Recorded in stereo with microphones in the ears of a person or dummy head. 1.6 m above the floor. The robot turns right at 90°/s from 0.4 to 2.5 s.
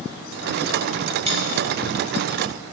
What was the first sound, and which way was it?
A dropped coin, 40° right (ahead or behind).